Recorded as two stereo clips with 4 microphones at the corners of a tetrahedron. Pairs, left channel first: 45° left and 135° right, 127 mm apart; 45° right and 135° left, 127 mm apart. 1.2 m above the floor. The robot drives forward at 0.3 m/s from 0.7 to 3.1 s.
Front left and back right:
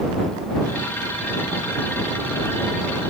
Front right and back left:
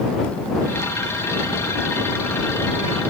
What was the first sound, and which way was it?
Only background noise.